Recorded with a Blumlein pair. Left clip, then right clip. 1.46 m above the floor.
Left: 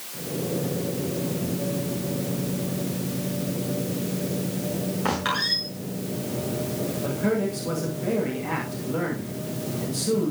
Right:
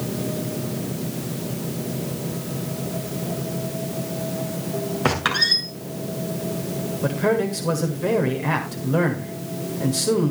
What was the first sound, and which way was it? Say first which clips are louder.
A squeak: right 5 dB; 25° right.